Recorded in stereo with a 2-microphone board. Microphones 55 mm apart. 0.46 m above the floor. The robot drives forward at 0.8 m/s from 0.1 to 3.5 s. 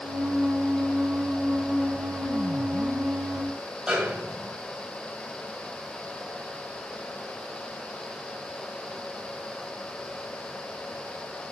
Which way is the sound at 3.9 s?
15° right (ahead or behind).